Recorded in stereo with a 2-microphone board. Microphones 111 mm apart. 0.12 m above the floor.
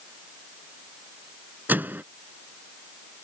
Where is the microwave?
15° right (ahead or behind).